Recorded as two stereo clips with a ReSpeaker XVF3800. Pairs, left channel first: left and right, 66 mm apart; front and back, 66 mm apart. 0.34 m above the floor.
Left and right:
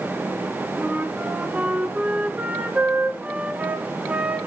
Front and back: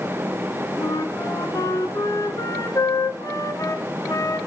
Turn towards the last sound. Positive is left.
turn(degrees=-25)